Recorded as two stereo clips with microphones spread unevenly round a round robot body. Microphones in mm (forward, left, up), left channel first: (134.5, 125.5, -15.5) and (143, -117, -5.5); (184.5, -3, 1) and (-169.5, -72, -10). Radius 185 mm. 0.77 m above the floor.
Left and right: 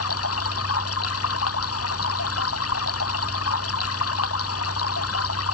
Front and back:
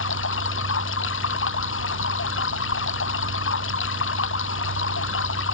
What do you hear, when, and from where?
0.0 s running water: 70° left